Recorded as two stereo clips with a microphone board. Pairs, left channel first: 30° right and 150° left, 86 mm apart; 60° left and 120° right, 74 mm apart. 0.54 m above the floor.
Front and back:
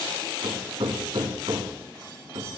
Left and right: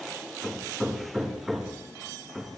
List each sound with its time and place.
0.4 s hammering: 155° left, 3.5 m